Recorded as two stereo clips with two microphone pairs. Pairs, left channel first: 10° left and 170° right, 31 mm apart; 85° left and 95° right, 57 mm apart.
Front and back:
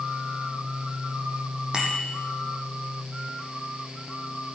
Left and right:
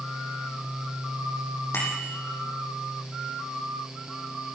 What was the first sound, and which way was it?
A bicycle bell, 125° left.